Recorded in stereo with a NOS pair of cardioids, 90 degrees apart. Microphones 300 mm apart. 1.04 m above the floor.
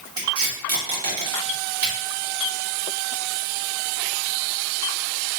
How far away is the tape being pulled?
About 2.0 m.